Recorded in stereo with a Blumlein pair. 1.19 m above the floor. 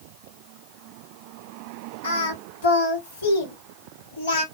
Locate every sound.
2.0 s singing: 60° left, 1.3 m